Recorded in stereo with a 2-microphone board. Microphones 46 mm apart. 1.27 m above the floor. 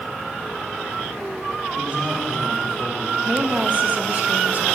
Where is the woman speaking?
35° right (ahead or behind), 1.5 m.